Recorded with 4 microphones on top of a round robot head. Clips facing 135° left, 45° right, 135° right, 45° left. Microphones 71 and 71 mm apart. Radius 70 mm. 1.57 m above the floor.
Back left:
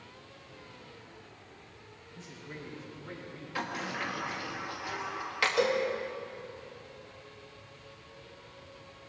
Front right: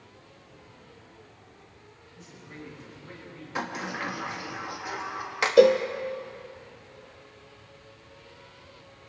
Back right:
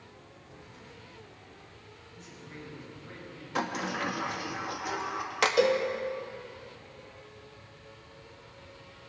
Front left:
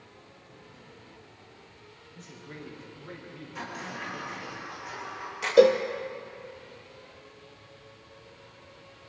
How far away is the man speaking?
About 8 m.